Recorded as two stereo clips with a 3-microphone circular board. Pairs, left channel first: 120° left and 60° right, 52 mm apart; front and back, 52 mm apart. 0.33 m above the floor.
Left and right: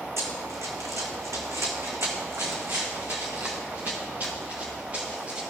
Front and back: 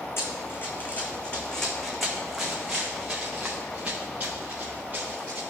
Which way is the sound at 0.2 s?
35° right.